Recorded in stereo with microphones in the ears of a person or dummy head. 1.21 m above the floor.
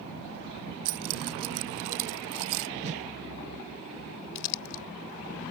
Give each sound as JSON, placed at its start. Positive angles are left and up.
{"t": 0.8, "sound": "keys jangling", "side_deg": -75}
{"t": 2.8, "sound": "a whoosh", "side_deg": -30}
{"t": 4.3, "sound": "crumpling", "side_deg": 65}